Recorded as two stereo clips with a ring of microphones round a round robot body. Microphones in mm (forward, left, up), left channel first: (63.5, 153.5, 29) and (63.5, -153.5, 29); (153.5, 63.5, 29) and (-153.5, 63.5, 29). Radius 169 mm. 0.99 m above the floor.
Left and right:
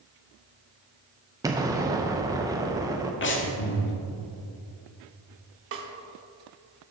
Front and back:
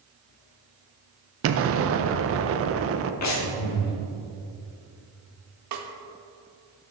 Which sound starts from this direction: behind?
An explosion, at 1.4 s.